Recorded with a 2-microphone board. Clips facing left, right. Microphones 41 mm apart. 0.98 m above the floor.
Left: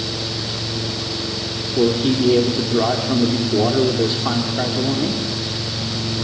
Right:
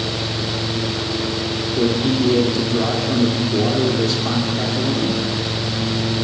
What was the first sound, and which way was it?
A man speaking, 30° left (ahead or behind).